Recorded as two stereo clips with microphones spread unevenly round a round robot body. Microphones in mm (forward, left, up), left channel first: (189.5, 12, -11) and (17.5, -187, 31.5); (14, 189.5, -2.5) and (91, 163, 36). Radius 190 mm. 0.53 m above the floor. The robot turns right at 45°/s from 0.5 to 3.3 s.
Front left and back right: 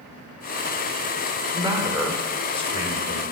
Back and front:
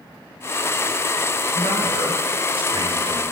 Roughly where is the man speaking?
Ahead right.